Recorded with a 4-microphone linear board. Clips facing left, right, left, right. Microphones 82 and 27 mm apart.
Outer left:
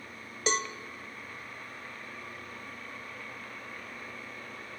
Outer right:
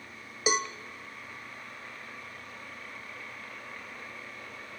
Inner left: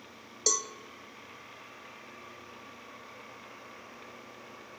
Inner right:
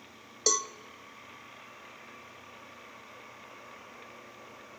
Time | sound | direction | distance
0.5 | a cowbell | 10° right (ahead or behind) | 0.9 m